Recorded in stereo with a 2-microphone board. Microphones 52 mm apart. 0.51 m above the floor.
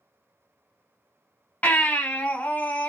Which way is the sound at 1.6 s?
30° left (ahead or behind).